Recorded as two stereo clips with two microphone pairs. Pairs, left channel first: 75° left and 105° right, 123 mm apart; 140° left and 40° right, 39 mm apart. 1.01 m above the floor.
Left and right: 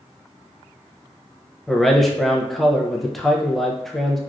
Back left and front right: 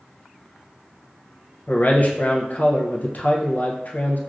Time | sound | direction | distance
1.7 | a man speaking | 165° left | 0.5 m